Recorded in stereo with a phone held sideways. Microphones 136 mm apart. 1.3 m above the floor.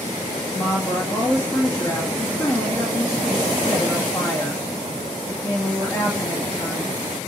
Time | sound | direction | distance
0.5 | a woman speaking | 20° left (ahead or behind) | 2.5 m